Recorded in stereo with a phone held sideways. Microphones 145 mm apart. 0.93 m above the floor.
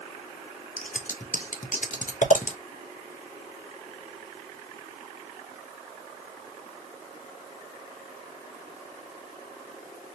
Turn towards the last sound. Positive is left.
turn(degrees=65)  # may be behind; listen again after turning